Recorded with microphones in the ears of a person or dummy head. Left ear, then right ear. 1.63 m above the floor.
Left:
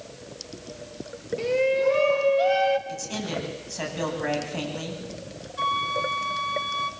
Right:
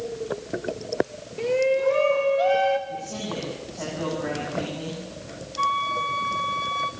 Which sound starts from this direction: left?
A man speaking, at 2.9 s.